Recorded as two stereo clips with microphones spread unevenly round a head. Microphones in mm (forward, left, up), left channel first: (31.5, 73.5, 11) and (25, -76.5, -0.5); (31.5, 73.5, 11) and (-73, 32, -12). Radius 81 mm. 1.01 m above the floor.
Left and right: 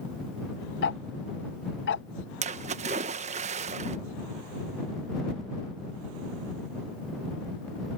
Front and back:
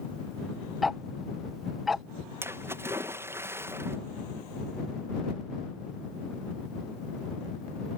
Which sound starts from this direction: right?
A splash, at 2.4 s.